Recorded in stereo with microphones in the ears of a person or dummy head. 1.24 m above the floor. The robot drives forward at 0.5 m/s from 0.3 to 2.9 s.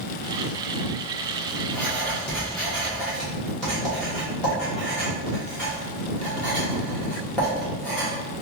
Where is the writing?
10° left (ahead or behind), 0.7 m; by 8.1 s 5° left (ahead or behind), 1.3 m.